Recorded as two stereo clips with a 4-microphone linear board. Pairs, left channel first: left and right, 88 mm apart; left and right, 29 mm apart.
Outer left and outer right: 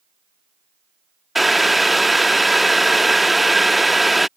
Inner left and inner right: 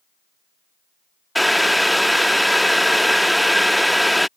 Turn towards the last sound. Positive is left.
turn(degrees=0)  # may be behind; listen again after turning